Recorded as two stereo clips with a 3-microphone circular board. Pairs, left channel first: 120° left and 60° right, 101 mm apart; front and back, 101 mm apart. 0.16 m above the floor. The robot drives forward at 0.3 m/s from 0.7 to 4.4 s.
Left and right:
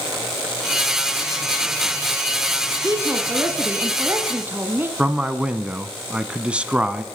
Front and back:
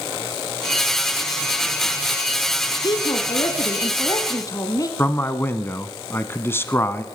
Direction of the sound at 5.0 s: Straight ahead.